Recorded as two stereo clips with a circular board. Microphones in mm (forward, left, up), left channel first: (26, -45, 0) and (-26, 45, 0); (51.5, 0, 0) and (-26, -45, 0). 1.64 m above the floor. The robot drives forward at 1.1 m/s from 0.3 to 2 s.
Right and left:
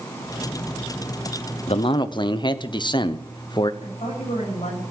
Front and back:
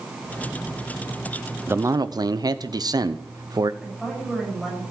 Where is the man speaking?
80° right, 0.9 m; by 3.7 s 105° right, 0.9 m.